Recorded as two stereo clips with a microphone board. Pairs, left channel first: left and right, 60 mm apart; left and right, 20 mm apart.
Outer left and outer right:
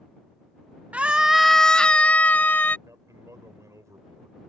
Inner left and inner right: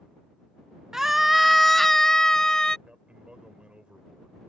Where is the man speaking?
65° right (ahead or behind).